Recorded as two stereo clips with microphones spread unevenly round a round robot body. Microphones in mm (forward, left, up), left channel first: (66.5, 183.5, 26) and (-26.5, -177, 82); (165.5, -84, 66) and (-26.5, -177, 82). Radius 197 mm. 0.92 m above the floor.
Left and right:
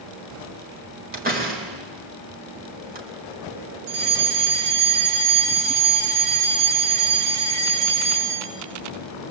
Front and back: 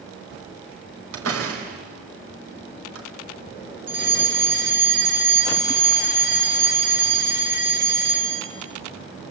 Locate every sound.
1.1 s a door slam: 175° right, 4.5 m
3.9 s a fire alarm: 120° right, 5 m